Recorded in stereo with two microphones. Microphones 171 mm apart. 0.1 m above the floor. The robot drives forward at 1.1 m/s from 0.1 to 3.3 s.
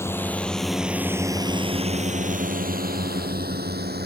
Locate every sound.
0.0 s a drone: 15° left (ahead or behind); by 4.1 s 70° right (ahead or behind)